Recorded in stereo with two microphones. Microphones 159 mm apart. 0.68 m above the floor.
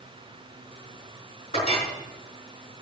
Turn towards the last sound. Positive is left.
turn(degrees=35)  # may be behind; listen again after turning